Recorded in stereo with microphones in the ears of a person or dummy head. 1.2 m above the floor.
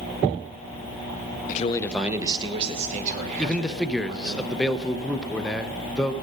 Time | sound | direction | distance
1.5 | a man speaking | 45° left (ahead or behind) | 0.8 m
3.4 | a man speaking | centre (ahead or behind) | 0.6 m